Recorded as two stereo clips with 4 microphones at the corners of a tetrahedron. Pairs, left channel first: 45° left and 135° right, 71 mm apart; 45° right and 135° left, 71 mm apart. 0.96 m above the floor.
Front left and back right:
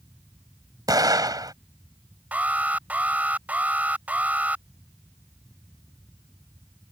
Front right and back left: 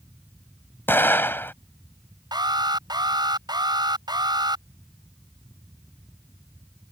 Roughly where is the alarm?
Behind left.